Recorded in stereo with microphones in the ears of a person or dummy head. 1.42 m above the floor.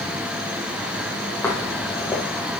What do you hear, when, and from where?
1.4 s footsteps: 15° left (ahead or behind), 2 m